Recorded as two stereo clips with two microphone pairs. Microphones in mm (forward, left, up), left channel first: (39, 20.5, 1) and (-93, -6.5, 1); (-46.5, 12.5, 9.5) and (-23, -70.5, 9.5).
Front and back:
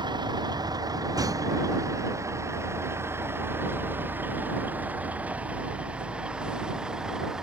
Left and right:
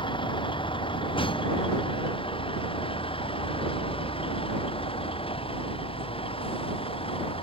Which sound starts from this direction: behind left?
A vehicle, at 0.0 s.